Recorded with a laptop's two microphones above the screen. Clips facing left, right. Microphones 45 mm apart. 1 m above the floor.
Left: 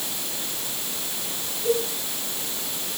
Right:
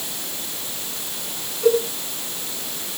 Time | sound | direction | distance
1.6 | a cowbell | 80° right | 7.5 m